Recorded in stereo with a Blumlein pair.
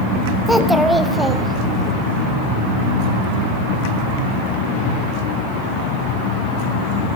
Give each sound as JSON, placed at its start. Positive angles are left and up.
{"t": 0.5, "sound": "a child speaking", "azimuth_deg": 0, "distance_m": 0.7}